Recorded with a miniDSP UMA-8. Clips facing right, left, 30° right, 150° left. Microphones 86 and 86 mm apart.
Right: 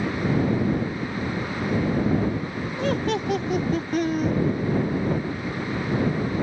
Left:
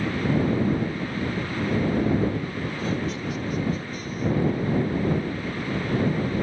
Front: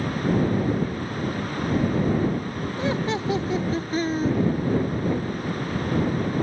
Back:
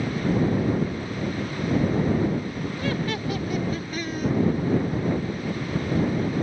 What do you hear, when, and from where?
2.8 s laughter: 100° right; by 4.4 s 85° right